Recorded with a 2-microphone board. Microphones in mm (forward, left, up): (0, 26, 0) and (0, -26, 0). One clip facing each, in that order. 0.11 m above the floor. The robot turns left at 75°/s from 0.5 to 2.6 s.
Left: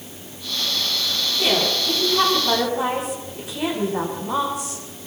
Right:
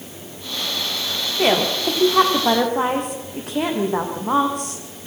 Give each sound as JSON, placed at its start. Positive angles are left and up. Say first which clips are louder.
{"t": 1.4, "sound": "a woman speaking", "louder": "right 4 dB", "azimuth_deg": -40, "distance_m": 7.0}